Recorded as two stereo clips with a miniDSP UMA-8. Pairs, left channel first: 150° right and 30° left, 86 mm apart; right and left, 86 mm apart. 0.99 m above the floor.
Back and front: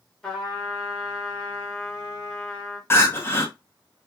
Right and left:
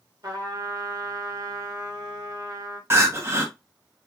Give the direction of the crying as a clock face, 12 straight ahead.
7 o'clock.